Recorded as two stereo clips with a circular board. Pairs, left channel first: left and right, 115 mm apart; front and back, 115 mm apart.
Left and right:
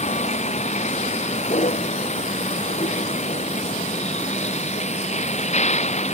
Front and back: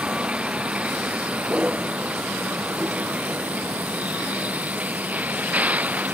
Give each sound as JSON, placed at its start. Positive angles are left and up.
{"t": 0.0, "sound": "a vehicle", "azimuth_deg": 100}